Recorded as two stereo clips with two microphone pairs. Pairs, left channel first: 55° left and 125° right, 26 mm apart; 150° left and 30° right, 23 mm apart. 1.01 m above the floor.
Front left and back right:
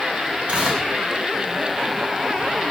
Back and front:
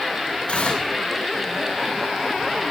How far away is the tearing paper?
About 6 m.